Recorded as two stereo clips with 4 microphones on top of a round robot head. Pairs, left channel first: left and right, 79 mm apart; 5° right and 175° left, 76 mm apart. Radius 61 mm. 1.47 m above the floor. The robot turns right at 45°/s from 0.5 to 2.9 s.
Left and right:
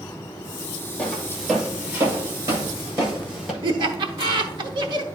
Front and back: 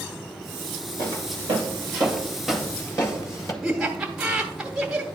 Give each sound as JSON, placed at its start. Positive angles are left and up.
{"t": 1.0, "sound": "footsteps", "azimuth_deg": 160, "distance_m": 2.5}
{"t": 3.6, "sound": "laughter", "azimuth_deg": -105, "distance_m": 0.9}